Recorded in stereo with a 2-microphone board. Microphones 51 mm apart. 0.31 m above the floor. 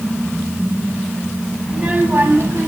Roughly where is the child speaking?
Centre.